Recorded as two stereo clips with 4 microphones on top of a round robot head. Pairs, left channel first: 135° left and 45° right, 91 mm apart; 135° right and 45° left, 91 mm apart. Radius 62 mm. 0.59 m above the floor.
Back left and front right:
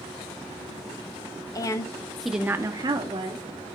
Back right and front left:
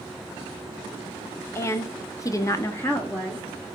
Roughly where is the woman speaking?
Behind.